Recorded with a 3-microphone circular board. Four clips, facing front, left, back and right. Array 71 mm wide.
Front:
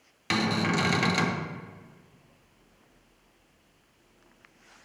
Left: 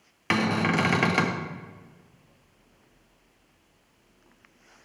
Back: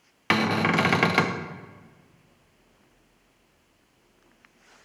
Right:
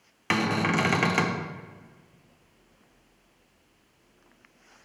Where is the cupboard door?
170° left, 0.5 m.